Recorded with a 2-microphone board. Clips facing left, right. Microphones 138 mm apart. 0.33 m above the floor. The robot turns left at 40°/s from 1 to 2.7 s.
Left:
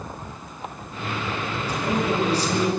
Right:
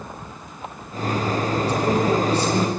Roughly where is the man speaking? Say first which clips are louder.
Right 3 dB; right.